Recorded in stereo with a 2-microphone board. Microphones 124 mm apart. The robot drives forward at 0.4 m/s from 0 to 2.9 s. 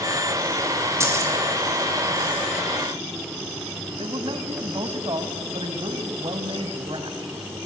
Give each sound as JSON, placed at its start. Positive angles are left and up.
{"t": 1.0, "sound": "keys jangling", "side_deg": -25, "distance_m": 3.0}
{"t": 4.0, "sound": "a man speaking", "side_deg": -45, "distance_m": 1.7}